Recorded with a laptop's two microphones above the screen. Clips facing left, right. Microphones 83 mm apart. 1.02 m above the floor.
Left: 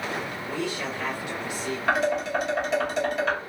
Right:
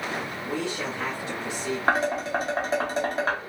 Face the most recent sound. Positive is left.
turn(degrees=-40)  # may be behind; listen again after turning